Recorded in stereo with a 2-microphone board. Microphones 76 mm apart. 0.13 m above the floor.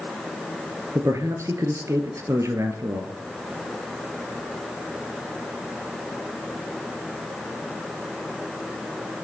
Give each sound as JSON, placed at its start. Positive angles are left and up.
{"t": 0.9, "sound": "a man speaking", "side_deg": -40, "distance_m": 1.9}